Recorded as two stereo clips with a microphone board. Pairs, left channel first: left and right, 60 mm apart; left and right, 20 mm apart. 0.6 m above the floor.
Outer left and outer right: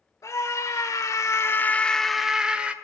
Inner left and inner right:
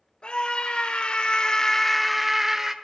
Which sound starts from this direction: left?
A scream, at 0.2 s.